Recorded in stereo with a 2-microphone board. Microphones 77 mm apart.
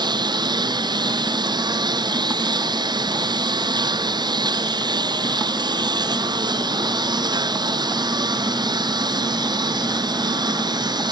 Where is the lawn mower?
65° right (ahead or behind).